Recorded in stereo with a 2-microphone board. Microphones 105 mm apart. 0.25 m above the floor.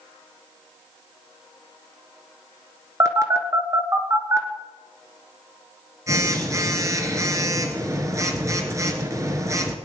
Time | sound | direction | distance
3.0 | a phone buzzing | 30° right (ahead or behind) | 1.5 m